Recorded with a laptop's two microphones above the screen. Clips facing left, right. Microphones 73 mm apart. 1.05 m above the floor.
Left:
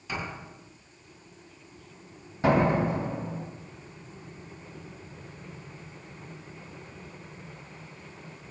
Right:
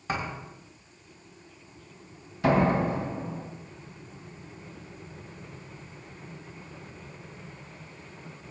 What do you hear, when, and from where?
0.1 s a thud: 40° right (ahead or behind), 4 m
2.4 s a door slam: 35° left (ahead or behind), 4 m